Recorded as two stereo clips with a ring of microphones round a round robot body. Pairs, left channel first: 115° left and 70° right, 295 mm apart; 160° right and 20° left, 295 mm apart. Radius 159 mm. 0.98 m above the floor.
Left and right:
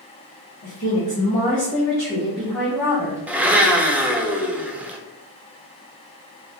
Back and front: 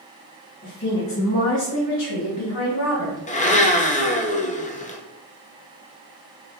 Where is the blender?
145° right, 0.7 m.